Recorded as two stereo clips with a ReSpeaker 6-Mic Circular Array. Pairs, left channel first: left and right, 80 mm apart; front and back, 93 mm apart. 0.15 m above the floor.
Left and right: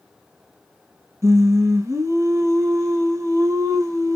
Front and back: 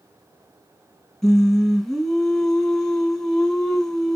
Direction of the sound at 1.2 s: 85° right.